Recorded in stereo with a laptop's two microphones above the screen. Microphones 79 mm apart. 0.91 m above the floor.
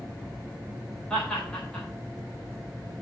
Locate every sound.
1.1 s laughter: 10° left (ahead or behind), 3.5 m